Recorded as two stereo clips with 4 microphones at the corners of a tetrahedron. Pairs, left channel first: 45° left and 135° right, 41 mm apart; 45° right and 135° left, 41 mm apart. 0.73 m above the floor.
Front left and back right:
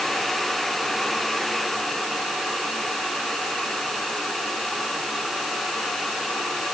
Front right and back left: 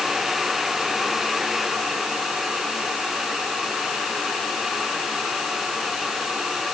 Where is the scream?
No scream in this recording.